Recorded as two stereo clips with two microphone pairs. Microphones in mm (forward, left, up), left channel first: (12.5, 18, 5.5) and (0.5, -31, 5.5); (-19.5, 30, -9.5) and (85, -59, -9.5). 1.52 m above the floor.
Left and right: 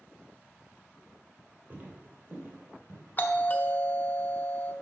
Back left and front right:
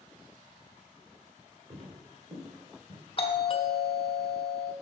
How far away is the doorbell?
About 0.9 m.